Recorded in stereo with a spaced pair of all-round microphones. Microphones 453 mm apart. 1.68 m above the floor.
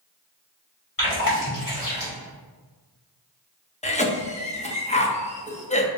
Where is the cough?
15° left (ahead or behind), 0.8 m.